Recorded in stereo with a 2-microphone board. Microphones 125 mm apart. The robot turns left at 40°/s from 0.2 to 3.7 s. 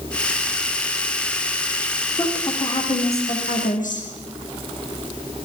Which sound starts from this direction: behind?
A woman speaking, at 2.2 s.